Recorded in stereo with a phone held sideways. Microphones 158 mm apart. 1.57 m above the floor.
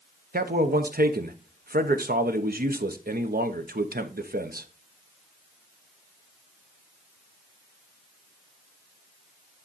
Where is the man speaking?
70° right (ahead or behind), 1.0 m.